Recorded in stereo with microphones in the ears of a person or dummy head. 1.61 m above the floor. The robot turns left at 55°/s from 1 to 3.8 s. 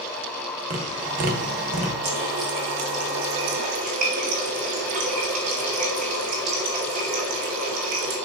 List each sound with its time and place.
0.7 s tapping: 35° right (ahead or behind), 1.6 m; by 1.9 s 30° right (ahead or behind), 1.6 m
2.0 s a running tap: 35° right, 2.5 m; by 8.2 s 135° right, 2.5 m